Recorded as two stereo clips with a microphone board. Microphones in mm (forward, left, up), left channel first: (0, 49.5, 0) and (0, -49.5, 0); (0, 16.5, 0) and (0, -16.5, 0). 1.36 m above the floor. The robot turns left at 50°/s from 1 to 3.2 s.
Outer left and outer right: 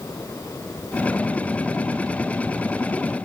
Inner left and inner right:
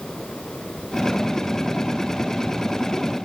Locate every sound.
Only background noise.